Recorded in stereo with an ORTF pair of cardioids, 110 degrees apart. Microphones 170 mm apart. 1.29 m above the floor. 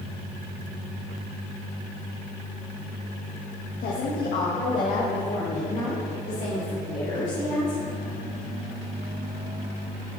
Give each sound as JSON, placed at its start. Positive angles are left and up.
{"t": 3.8, "sound": "a woman speaking", "azimuth_deg": 65, "distance_m": 1.4}